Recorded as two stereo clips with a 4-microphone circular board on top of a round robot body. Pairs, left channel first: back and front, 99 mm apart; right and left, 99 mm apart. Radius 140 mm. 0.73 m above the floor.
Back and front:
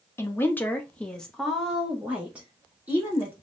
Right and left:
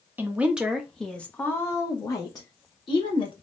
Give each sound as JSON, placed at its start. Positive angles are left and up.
{"t": 0.2, "sound": "a woman speaking", "azimuth_deg": 145, "distance_m": 1.0}